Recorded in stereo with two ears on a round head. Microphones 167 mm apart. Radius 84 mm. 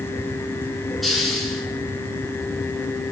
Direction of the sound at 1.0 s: Centre (ahead or behind).